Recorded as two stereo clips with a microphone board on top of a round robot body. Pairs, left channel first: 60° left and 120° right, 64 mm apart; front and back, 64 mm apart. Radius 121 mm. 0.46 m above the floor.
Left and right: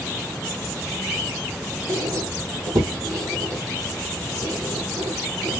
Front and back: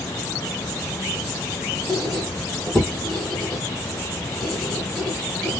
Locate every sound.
1.9 s a squeak: 85° right, 2.5 m